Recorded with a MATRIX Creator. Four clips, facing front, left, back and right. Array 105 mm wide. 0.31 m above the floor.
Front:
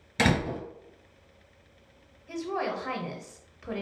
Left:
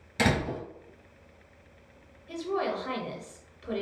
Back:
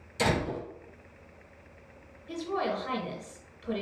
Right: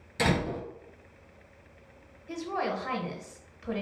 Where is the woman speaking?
35° right, 1.0 m.